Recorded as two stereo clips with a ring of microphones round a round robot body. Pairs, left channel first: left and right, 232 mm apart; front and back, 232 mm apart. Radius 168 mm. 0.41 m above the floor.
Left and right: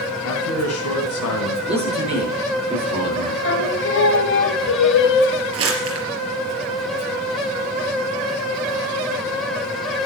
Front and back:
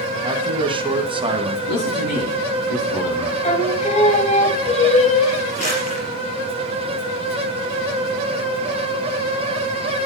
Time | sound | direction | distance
0.2 | a man speaking | 110° left | 2.5 m
1.7 | a man speaking | 25° right | 9 m
3.4 | singing | 60° left | 2.0 m
5.5 | crumpling | 70° right | 4 m